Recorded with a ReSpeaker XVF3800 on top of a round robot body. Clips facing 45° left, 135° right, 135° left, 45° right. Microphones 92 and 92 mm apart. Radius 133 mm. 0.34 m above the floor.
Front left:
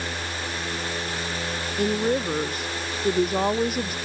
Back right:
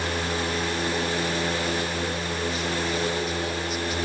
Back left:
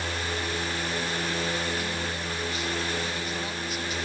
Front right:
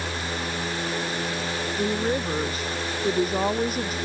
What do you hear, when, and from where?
1.8 s a woman speaking: 5° left